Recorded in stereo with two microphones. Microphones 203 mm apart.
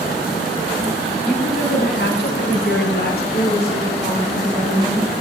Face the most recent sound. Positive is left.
turn(degrees=0)  # may be behind; listen again after turning